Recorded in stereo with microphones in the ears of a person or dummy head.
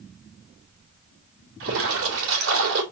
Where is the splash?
70° right (ahead or behind), 2.5 m.